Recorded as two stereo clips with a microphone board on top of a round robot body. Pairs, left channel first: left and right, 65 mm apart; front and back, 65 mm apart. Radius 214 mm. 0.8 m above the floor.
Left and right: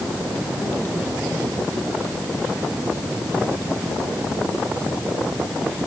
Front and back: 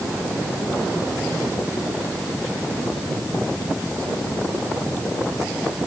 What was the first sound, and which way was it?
Only background noise.